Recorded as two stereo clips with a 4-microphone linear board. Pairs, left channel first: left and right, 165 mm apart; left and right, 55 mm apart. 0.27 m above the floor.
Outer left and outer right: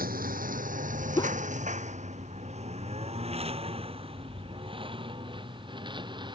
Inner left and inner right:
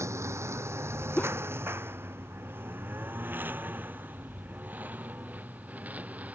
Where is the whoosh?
30° left (ahead or behind).